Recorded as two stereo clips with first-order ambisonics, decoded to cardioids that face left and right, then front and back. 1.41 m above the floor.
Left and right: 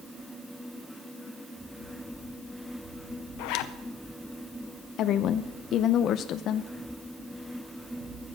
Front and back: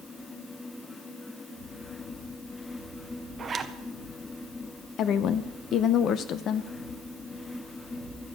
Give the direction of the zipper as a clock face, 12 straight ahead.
8 o'clock.